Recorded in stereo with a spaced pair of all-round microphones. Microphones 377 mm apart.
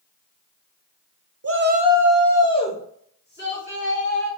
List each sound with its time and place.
1.4 s a shout: 40° right (ahead or behind), 0.6 m; by 4.3 s 35° left (ahead or behind), 2.5 m